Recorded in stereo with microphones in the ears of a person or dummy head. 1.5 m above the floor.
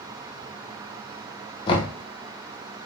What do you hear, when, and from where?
1.7 s knocking: 30° left (ahead or behind), 0.8 m